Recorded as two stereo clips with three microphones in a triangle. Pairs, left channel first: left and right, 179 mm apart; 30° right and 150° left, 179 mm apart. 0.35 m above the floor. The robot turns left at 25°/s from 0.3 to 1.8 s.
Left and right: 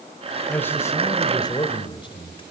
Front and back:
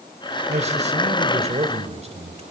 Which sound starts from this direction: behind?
A man speaking, at 0.5 s.